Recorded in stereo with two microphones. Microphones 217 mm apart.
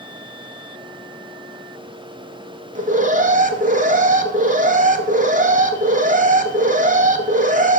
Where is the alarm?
35° right (ahead or behind), 0.9 m.